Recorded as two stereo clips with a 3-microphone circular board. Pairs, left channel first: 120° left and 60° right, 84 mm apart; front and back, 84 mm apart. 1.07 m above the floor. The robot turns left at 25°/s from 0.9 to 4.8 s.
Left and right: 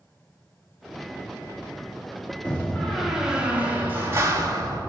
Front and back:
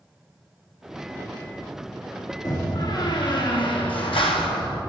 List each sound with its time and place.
2.5 s a door slam: 40° left, 1.2 m; by 4.8 s 15° right, 1.2 m